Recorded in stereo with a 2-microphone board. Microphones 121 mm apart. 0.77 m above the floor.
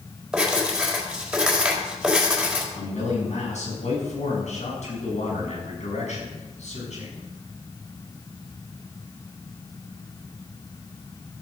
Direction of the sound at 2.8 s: 70° left (ahead or behind).